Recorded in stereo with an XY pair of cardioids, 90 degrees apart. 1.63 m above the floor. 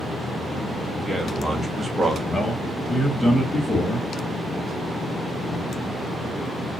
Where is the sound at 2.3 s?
5° left, 1.4 m.